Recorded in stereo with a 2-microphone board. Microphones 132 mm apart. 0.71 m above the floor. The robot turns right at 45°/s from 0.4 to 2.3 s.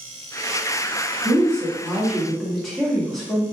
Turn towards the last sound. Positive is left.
turn(degrees=5)